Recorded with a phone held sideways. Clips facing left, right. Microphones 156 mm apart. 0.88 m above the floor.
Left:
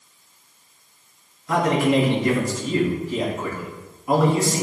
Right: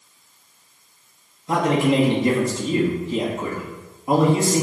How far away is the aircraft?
I don't hear an aircraft.